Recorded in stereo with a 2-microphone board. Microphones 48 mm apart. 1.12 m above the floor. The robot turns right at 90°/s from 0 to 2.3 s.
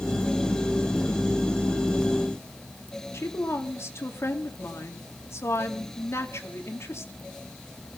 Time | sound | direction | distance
3.1 | a woman speaking | 70° left (ahead or behind) | 2.5 m